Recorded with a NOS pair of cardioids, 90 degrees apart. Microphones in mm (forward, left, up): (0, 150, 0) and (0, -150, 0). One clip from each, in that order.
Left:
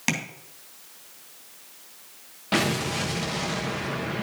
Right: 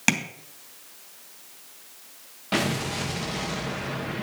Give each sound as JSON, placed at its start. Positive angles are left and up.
{"t": 0.1, "sound": "tapping", "azimuth_deg": -25, "distance_m": 3.0}
{"t": 2.5, "sound": "an explosion", "azimuth_deg": 10, "distance_m": 1.1}